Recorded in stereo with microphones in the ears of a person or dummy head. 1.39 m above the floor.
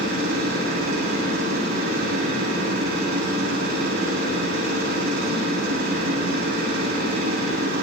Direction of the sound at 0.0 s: 55° right (ahead or behind).